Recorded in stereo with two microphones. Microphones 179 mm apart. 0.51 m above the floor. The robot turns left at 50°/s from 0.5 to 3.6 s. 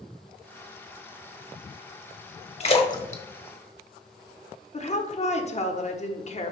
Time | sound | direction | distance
2.6 | a splash | 35° left (ahead or behind) | 1.0 m
4.7 | a woman speaking | 40° left (ahead or behind) | 0.9 m